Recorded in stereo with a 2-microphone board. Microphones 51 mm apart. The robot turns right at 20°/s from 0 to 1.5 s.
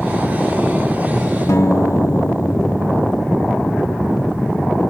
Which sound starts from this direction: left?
A guitar, at 1.5 s.